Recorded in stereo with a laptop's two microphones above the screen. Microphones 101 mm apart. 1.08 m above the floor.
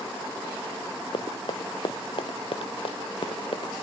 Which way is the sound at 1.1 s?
55° left (ahead or behind).